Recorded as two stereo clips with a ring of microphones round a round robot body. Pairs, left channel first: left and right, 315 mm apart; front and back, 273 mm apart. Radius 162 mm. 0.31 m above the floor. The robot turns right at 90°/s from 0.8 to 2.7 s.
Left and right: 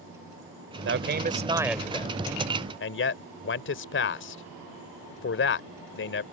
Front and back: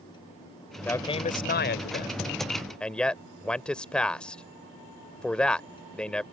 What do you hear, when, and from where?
0.8 s a man speaking: 80° right; by 6.2 s 85° left